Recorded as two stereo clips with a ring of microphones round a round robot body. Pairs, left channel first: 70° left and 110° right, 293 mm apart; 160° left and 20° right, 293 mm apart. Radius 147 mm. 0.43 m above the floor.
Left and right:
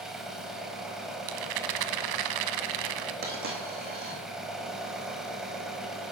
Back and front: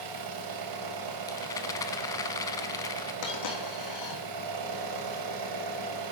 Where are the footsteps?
No footsteps in this recording.